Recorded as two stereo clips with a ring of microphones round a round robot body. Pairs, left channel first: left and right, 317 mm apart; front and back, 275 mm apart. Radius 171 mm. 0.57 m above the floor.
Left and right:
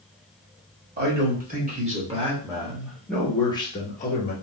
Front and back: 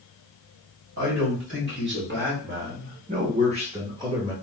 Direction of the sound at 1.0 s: 140° right.